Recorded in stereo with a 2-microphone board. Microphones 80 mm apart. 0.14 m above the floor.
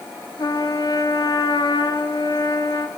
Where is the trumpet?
65° left (ahead or behind), 1.0 m.